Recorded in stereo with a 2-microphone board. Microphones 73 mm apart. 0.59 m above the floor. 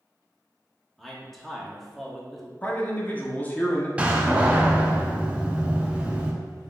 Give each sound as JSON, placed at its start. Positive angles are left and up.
{"t": 1.0, "sound": "a man speaking", "side_deg": 5, "distance_m": 0.7}
{"t": 2.6, "sound": "a man speaking", "side_deg": 25, "distance_m": 0.7}
{"t": 4.0, "sound": "a door slam", "side_deg": -15, "distance_m": 0.5}